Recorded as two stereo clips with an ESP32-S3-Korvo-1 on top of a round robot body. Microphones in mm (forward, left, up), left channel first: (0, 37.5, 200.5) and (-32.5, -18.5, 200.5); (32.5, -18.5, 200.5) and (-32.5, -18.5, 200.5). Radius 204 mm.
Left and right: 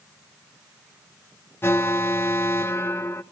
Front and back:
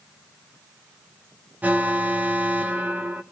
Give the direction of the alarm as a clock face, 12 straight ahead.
8 o'clock.